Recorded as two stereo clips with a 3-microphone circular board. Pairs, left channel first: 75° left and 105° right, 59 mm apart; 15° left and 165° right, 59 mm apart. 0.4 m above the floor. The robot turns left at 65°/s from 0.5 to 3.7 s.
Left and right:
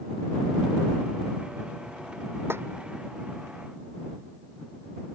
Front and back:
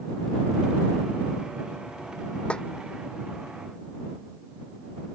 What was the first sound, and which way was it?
A snare drum, 55° right.